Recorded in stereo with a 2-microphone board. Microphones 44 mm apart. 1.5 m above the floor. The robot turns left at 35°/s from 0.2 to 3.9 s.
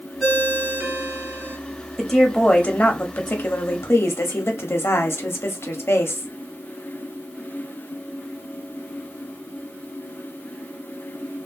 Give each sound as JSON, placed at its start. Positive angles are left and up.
{"t": 0.2, "sound": "a ringtone", "azimuth_deg": 10, "distance_m": 1.6}
{"t": 2.0, "sound": "a woman speaking", "azimuth_deg": 175, "distance_m": 0.7}